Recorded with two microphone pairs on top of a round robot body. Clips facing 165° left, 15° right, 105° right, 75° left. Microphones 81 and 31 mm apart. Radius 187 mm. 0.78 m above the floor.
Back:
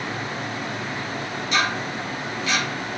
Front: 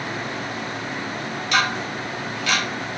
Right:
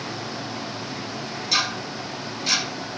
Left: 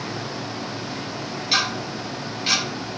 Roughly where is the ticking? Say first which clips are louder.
Front 2 dB, left 1 dB; ahead.